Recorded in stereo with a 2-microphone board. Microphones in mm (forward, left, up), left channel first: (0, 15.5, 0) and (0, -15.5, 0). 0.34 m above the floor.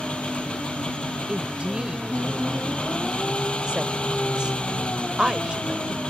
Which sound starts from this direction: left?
An engine running, at 0.0 s.